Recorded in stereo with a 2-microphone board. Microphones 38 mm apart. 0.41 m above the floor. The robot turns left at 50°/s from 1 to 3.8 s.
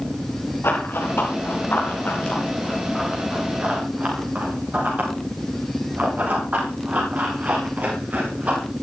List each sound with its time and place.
0.6 s running footsteps: 85° left, 7 m; by 8.6 s 45° right (ahead or behind), 13 m